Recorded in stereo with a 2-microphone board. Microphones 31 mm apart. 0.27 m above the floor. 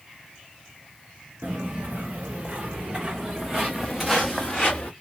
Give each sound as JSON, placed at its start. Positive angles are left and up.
{"t": 1.4, "sound": "footsteps", "side_deg": -60, "distance_m": 1.5}